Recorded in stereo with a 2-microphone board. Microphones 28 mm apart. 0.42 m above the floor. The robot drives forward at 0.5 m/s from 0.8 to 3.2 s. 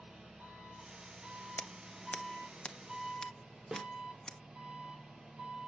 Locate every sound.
0.0 s an engine running: 50° right (ahead or behind), 5 m; by 5.7 s 40° right (ahead or behind), 6 m
1.6 s scissors: 70° left (ahead or behind), 0.6 m; by 4.4 s 30° left (ahead or behind), 1.1 m
3.7 s a snare drum: 20° right (ahead or behind), 1.0 m